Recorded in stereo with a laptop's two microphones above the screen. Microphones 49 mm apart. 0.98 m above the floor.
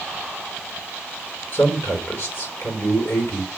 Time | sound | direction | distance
1.5 | a man speaking | 60° left (ahead or behind) | 3 m